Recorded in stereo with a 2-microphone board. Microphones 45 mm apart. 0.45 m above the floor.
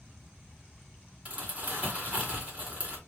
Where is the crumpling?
35° right (ahead or behind), 1.6 m.